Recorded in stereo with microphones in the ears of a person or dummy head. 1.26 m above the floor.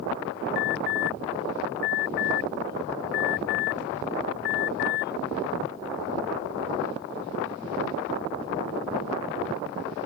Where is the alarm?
55° left (ahead or behind).